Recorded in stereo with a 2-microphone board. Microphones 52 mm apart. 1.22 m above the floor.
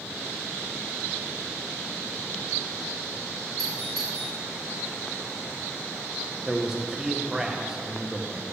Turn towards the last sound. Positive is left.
turn(degrees=-10)  # may be behind; listen again after turning